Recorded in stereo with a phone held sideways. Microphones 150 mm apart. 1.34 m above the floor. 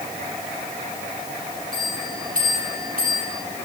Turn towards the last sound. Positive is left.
turn(degrees=-70)  # may be behind; listen again after turning